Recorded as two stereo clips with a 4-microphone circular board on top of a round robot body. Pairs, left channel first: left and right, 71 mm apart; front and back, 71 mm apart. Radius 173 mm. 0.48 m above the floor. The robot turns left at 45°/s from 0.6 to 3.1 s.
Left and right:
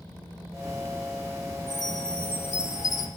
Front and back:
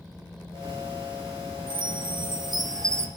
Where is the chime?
170° right, 2.5 m; by 3.1 s 125° left, 2.5 m.